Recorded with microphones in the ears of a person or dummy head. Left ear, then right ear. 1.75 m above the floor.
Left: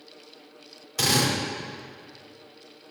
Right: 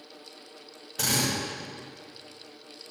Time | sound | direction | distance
1.0 | a drill | 85° left | 9 m